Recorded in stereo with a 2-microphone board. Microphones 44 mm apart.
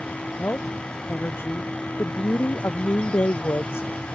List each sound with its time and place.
0.4 s a woman speaking: 55° left (ahead or behind); by 4.2 s 65° left (ahead or behind)